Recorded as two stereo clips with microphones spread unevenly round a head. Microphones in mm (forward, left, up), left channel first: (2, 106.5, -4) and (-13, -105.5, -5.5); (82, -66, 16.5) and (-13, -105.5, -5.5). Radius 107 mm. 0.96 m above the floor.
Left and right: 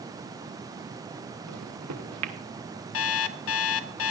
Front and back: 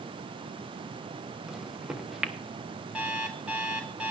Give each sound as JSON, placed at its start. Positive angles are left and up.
{"t": 1.5, "sound": "a microwave", "azimuth_deg": -75, "distance_m": 1.2}
{"t": 2.9, "sound": "an alarm clock", "azimuth_deg": 115, "distance_m": 0.6}